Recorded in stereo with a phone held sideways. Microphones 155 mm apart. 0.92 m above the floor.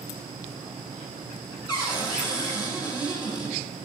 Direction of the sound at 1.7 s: 25° left (ahead or behind).